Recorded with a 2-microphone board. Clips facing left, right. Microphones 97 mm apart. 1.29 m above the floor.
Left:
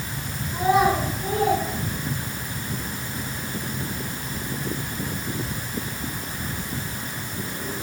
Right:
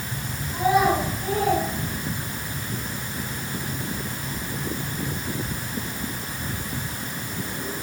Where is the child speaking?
10° right (ahead or behind), 8 m; by 2.5 s centre (ahead or behind), 9.5 m.